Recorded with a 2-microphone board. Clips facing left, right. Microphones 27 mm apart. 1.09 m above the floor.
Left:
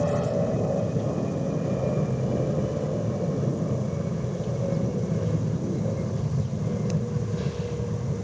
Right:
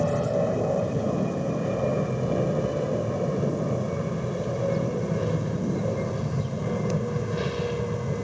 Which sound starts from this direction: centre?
An aircraft, at 0.0 s.